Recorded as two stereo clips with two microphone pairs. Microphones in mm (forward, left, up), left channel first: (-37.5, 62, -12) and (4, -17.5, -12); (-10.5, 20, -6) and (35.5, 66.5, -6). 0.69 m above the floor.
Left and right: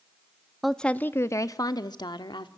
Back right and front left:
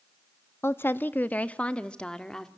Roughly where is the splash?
No splash in this recording.